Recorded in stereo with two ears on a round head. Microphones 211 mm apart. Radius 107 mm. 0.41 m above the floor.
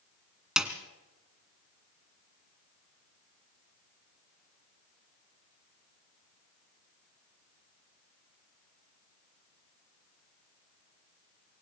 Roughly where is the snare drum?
Centre.